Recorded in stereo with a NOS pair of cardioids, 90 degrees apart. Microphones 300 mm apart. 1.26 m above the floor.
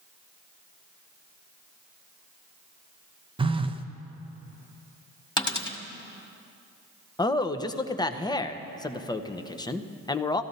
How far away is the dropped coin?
About 1.8 m.